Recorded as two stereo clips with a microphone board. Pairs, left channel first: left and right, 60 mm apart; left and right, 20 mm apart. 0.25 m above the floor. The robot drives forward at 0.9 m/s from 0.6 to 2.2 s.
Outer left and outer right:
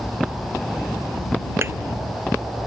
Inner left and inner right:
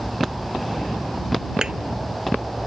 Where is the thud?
45° right (ahead or behind); by 1.7 s 50° right (ahead or behind).